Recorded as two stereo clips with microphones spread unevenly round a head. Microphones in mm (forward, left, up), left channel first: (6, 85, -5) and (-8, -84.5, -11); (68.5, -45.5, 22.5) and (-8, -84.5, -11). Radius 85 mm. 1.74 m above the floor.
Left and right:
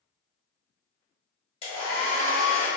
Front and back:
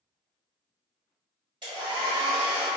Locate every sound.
1.6 s a hair dryer: 140° left, 1.6 m